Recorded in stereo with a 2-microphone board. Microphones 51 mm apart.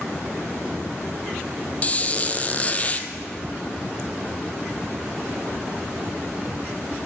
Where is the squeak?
30° left (ahead or behind), 0.6 m.